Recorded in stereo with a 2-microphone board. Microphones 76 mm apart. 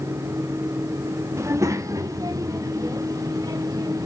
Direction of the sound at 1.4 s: 40° right (ahead or behind).